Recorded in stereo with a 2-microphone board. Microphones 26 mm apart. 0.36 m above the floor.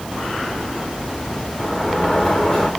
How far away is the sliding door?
About 6 m.